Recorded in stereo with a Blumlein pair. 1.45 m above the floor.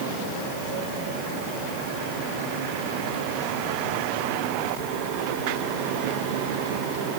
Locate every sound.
Only background noise.